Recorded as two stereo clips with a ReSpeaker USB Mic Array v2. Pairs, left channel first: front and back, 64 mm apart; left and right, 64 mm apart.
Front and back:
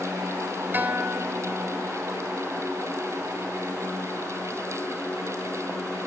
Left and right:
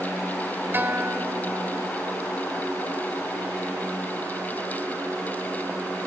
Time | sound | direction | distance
0.7 | a guitar | 135° right | 1.8 m